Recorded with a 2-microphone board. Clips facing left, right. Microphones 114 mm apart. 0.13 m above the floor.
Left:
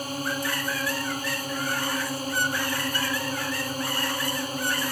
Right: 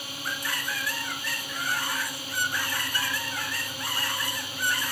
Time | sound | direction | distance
0.0 | a drone | 40° left (ahead or behind) | ?